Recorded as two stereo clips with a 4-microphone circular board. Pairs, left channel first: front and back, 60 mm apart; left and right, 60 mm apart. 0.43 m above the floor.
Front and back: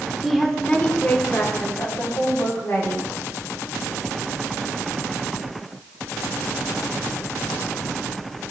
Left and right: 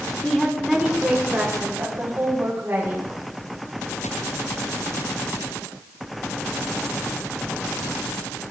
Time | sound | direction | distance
0.2 | a woman speaking | 105° left | 1.2 m